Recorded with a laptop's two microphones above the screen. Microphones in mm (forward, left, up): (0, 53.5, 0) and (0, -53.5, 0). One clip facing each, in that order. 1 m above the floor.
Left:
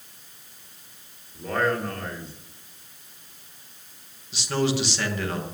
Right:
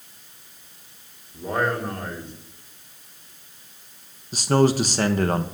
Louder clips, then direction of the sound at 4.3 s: Right 6 dB; 45° right (ahead or behind).